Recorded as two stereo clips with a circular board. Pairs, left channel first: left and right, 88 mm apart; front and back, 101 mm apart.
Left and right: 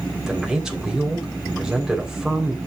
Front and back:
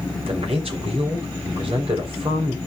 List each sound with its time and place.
0.3 s a man speaking: 175° right, 3 m